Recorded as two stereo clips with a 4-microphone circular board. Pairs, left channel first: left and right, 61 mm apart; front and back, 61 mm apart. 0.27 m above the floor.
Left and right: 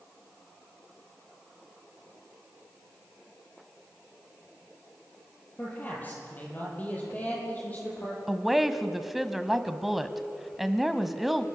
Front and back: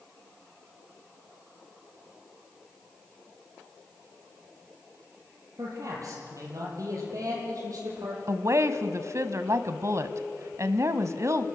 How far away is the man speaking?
About 7.5 m.